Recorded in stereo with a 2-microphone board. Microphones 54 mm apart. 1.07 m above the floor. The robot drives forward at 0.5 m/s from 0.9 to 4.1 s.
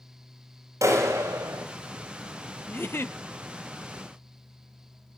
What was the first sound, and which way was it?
A clap, 85° right.